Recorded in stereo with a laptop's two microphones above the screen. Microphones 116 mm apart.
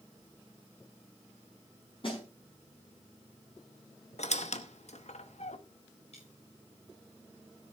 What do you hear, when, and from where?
2.0 s a snare drum: 50° left (ahead or behind), 5.5 m
4.2 s a squeak: 75° left (ahead or behind), 0.9 m
6.1 s a dropped coin: 65° left (ahead or behind), 9.5 m